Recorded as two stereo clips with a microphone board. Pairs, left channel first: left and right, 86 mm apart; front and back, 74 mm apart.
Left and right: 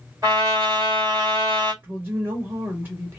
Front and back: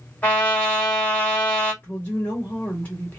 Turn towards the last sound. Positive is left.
turn(degrees=-50)